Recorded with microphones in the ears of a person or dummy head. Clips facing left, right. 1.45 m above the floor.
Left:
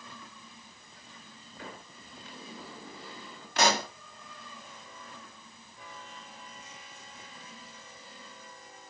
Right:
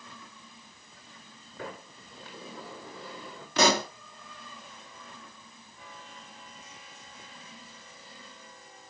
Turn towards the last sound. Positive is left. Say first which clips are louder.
# right 3 dB
turn(degrees=-80)